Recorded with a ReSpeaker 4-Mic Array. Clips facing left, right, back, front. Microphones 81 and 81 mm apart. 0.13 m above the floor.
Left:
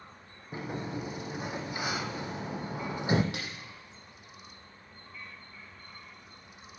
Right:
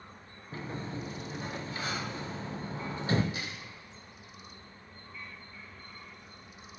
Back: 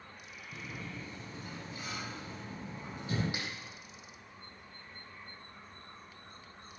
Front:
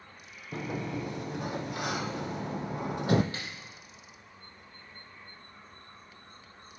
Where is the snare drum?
105° left, 5.5 m.